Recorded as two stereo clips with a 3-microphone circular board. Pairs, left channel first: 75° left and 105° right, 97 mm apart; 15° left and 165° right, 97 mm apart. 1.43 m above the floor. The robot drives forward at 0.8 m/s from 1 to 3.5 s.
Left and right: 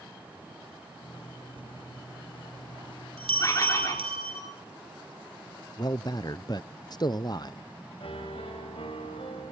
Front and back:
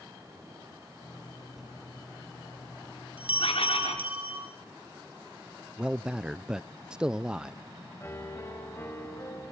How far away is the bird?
About 4.5 m.